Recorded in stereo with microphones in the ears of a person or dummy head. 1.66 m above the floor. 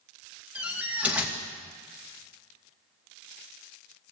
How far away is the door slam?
About 1.9 m.